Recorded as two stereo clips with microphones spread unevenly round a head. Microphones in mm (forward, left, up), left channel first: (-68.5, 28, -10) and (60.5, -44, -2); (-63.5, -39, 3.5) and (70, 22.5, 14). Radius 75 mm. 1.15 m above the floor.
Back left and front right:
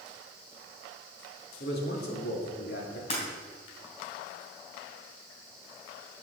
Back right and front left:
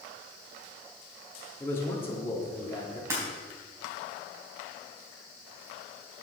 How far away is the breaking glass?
About 3 m.